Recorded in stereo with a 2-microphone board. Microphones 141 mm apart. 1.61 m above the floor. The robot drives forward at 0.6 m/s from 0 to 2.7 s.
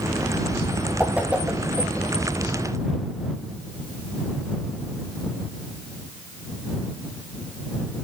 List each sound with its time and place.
1.0 s a whoosh: 10° right (ahead or behind), 2.5 m